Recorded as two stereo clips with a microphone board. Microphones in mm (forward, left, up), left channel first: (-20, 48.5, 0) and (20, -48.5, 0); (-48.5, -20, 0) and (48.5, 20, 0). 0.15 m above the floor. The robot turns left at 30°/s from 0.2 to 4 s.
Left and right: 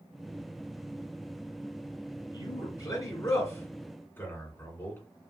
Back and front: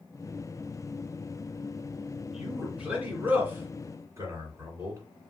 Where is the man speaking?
110° left, 1.7 m; by 5.0 s 60° left, 1.7 m.